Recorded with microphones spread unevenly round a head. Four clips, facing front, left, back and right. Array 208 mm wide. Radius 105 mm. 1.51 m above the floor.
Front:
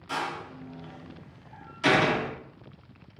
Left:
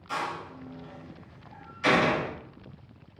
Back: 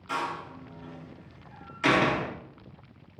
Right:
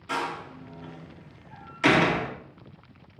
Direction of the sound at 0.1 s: 95° right.